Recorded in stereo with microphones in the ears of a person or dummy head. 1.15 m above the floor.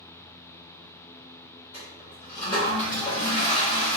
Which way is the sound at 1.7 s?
30° left (ahead or behind).